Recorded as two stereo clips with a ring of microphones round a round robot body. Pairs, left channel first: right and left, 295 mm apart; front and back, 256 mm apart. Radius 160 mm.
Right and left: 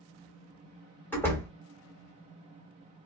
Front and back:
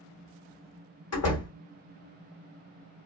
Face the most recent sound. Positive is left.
turn(degrees=-5)